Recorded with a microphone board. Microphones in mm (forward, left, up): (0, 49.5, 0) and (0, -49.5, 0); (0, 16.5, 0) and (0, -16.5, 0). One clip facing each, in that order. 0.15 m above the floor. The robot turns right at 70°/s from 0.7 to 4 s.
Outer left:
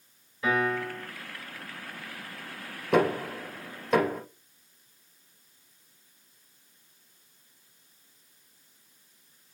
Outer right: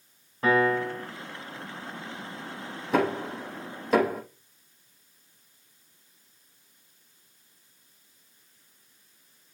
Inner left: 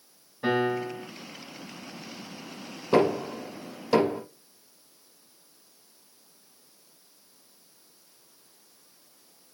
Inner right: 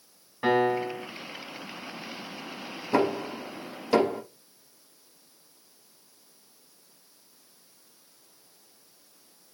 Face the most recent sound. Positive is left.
turn(degrees=-5)  # may be behind; listen again after turning